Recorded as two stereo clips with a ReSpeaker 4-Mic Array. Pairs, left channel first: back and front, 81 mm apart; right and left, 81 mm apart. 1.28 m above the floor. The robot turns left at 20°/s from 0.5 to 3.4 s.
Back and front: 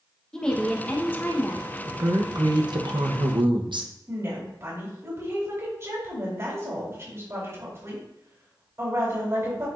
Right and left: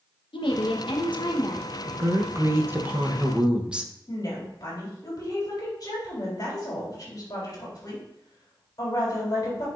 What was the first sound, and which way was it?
A woman speaking, 100° right.